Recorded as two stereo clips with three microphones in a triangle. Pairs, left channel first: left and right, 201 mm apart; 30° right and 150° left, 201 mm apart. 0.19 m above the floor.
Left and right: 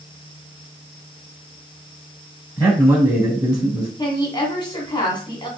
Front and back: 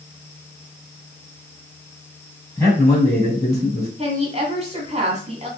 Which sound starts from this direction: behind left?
A woman speaking, at 4.0 s.